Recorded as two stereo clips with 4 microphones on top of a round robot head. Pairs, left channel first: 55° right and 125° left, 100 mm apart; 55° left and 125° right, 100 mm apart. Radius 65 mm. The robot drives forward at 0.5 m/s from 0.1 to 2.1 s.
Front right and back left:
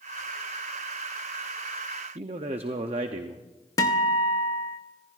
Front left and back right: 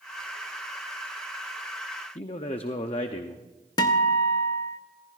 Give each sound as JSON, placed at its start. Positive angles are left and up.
{"t": 2.1, "sound": "a man speaking", "azimuth_deg": 90, "distance_m": 0.7}
{"t": 3.8, "sound": "a guitar", "azimuth_deg": 5, "distance_m": 0.8}